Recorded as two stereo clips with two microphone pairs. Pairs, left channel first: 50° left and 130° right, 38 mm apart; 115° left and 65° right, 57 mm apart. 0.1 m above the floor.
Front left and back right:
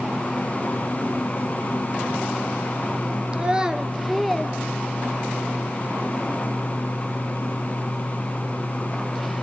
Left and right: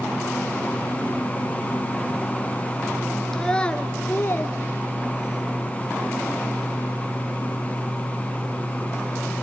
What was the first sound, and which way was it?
A child speaking, 165° right.